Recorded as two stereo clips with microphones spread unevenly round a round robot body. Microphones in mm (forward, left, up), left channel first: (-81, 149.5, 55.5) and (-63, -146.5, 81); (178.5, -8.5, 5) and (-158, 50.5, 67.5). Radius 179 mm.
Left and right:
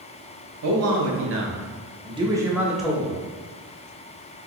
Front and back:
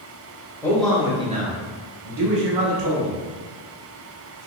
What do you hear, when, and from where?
0.6 s a man speaking: 80° right, 1.0 m; by 3.2 s 175° left, 1.3 m